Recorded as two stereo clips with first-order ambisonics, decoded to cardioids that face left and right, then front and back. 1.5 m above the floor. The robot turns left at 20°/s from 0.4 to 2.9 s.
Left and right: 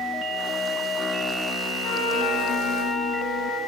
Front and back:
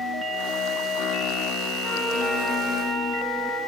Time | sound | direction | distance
1.8 | a trumpet | 70° left | 9.5 m